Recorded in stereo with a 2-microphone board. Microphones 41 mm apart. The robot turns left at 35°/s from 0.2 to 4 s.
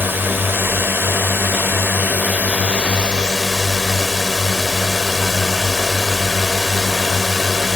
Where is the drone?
60° right; by 7.8 s 170° left.